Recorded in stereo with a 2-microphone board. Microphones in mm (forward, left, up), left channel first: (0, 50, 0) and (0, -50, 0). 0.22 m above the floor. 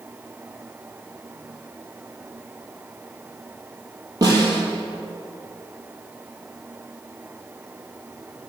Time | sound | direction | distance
4.2 | a snare drum | 40° right (ahead or behind) | 4.5 m